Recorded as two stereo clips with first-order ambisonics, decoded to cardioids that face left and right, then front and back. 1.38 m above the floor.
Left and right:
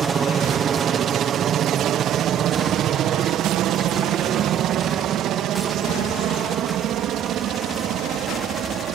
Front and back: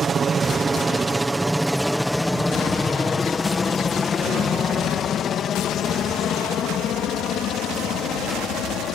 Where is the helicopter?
135° right; by 9.0 s 40° right.